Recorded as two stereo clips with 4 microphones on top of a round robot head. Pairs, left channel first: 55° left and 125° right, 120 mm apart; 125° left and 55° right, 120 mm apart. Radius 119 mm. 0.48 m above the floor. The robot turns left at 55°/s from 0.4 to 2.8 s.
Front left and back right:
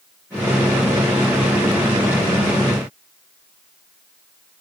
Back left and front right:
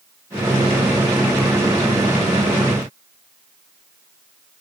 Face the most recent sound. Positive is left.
No sound to turn to.